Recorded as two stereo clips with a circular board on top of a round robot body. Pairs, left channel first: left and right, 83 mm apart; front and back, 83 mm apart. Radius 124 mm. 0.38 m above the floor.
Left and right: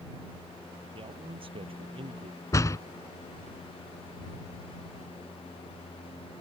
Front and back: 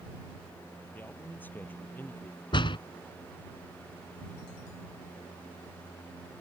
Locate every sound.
0.9 s a man speaking: 70° right
2.5 s a door slam: 35° left